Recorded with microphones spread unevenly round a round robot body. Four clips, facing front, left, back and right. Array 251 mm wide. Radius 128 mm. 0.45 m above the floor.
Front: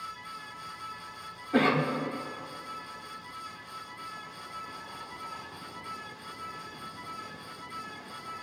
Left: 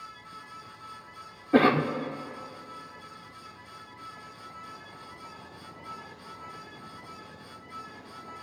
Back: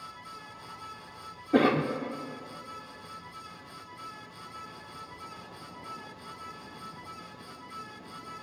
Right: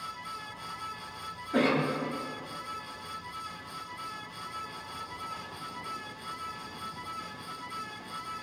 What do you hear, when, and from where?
1.5 s a cough: 115° left, 1.0 m